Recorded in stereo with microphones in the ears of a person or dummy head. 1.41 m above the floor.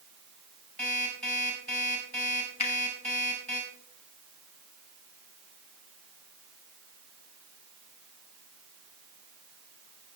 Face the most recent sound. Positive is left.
turn(degrees=30)  # may be behind; listen again after turning